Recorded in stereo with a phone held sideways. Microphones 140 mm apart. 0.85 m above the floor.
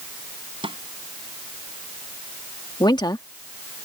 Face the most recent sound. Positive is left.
turn(degrees=30)  # may be behind; listen again after turning